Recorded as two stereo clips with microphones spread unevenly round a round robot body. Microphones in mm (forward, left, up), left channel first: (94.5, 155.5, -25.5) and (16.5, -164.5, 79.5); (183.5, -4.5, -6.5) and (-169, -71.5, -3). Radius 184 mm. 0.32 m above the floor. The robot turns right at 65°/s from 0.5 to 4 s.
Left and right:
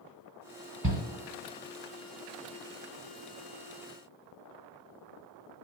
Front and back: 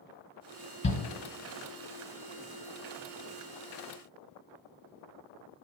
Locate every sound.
0.8 s a shout: 60° right, 2.0 m; by 1.0 s 45° right, 2.0 m